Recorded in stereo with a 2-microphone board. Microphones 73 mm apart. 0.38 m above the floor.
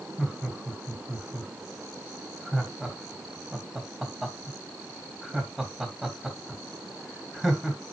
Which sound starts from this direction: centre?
Laughter, at 0.2 s.